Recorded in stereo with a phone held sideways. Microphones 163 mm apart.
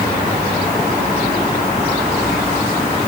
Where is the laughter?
No laughter in this recording.